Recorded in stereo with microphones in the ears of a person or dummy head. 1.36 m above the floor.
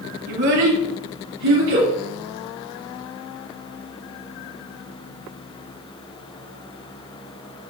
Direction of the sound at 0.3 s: 55° right (ahead or behind).